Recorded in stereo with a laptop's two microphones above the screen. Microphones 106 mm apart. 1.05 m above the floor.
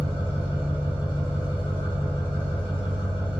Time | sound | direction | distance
0.0 | an engine running | 45° left (ahead or behind) | 1.1 m